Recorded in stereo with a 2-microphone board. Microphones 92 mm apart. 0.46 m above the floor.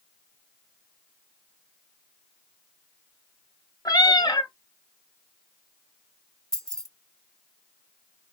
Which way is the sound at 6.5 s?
5° left (ahead or behind).